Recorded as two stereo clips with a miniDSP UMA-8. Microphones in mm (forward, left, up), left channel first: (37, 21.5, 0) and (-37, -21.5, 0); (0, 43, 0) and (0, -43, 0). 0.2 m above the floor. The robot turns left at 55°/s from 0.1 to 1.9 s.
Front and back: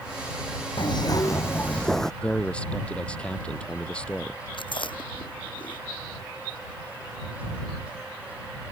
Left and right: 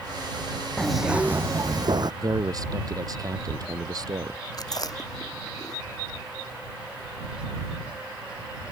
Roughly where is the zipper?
Ahead.